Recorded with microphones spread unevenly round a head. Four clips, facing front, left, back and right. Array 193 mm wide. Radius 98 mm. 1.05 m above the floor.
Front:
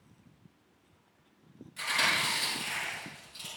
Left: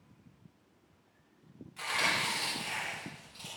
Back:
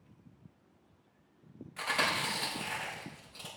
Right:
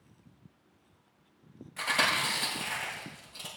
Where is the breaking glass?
No breaking glass in this recording.